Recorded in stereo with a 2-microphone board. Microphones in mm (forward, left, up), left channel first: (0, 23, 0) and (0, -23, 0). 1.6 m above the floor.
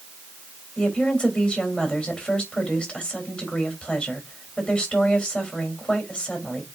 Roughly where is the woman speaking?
Left.